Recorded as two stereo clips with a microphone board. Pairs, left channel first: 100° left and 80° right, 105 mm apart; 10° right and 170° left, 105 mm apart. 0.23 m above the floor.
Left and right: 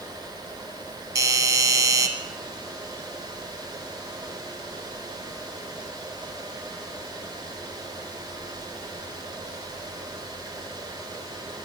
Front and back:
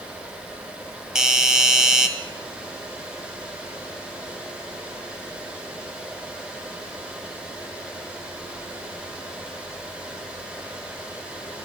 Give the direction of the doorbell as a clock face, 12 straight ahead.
4 o'clock.